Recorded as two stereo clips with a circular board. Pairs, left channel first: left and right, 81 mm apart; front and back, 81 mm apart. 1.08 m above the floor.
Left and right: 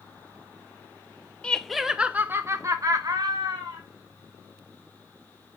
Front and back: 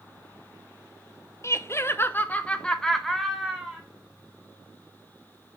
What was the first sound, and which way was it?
Laughter, 20° left.